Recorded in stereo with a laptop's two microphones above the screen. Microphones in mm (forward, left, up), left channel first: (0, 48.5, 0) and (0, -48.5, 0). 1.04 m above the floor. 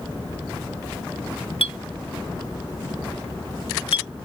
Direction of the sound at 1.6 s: 75° left (ahead or behind).